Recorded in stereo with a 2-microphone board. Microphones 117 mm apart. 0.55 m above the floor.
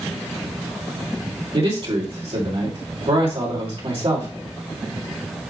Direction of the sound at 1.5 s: 55° right (ahead or behind).